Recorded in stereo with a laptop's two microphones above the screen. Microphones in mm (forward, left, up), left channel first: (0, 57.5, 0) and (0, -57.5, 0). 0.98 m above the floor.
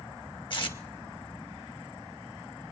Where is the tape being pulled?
45° left (ahead or behind), 1.3 m.